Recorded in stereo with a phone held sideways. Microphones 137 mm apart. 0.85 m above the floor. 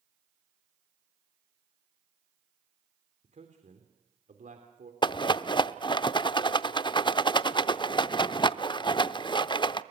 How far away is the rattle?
About 0.6 m.